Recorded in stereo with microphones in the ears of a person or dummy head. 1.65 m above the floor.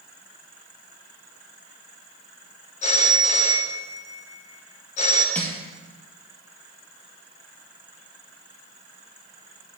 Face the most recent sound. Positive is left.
turn(degrees=10)  # may be behind; listen again after turning